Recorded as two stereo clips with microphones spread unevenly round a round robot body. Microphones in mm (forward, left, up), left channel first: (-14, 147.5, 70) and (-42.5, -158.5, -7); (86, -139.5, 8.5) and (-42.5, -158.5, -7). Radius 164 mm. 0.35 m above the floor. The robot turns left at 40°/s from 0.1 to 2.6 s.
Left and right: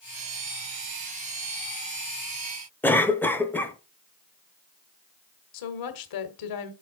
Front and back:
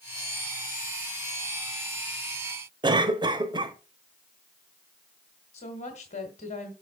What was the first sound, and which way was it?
A cough, 175° right.